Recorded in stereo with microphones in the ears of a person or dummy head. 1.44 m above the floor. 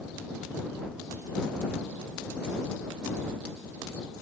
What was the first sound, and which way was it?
Only background noise.